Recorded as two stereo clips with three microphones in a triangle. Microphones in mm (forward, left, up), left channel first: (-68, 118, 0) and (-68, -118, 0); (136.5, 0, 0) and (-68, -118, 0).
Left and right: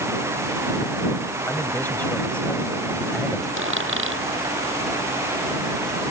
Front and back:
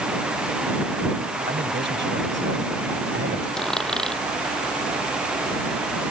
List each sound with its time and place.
1.5 s a man speaking: 170° left; by 3.5 s straight behind
3.6 s a dropped coin: 60° right